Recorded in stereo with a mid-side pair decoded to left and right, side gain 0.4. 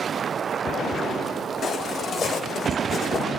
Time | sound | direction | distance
1.6 | footsteps | 60° left | 5.5 m